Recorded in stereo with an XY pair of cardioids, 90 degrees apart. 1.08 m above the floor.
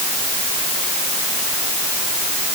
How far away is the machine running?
I don't hear a machine running.